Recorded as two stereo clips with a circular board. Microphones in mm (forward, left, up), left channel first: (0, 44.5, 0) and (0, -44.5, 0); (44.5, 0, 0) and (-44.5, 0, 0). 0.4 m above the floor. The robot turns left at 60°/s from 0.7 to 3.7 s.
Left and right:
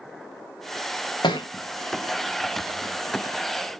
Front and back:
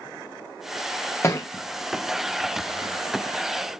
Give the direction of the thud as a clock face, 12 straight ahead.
10 o'clock.